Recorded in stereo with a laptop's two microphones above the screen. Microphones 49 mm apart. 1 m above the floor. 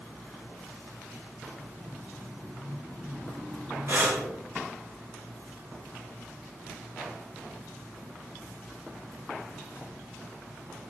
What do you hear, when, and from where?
3.9 s breathing: 50° right (ahead or behind), 2.5 m